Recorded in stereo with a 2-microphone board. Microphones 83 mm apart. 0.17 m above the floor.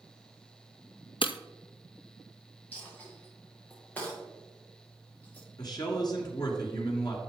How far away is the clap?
I don't hear a clap.